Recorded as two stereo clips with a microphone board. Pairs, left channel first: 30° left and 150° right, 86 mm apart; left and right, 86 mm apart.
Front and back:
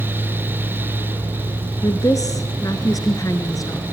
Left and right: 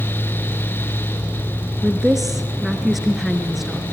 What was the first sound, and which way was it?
A woman speaking, straight ahead.